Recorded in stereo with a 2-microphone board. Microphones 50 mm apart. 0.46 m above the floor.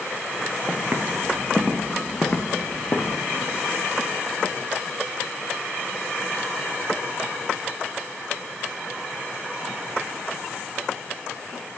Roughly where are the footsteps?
Right.